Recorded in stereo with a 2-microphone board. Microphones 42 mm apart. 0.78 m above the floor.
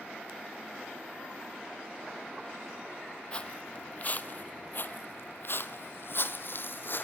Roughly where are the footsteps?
Left.